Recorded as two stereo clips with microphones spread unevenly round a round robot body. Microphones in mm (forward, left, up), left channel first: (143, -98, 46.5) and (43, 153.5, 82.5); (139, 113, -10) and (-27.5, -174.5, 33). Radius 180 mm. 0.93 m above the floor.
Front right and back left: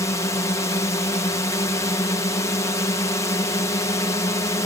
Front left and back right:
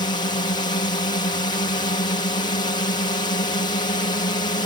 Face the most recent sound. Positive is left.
turn(degrees=-5)